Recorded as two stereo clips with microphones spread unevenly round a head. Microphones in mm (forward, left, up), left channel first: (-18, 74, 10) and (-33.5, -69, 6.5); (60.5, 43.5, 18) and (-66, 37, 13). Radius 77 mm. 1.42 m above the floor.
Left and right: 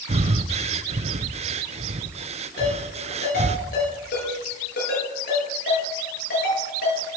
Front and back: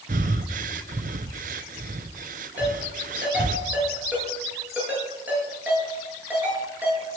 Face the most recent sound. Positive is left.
turn(degrees=105)